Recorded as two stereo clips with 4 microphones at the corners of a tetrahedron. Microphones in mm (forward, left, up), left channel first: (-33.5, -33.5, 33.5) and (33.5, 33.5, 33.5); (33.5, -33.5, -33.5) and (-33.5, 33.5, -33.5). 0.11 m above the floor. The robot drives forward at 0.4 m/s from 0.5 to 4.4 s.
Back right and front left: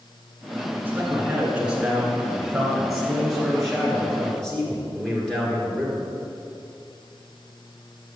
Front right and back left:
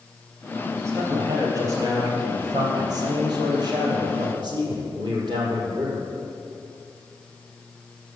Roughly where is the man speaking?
Left.